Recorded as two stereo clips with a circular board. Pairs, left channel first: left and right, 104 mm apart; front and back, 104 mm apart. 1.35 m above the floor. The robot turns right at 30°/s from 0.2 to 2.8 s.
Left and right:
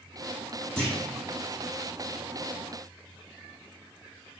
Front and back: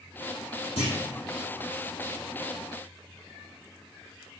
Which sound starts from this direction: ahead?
A clunk, at 0.8 s.